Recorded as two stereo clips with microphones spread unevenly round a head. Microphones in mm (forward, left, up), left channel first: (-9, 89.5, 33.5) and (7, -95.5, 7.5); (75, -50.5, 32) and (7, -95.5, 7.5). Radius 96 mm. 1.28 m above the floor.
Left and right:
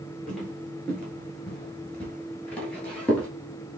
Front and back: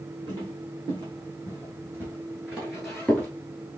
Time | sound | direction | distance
0.3 | footsteps | 170° left | 1.7 m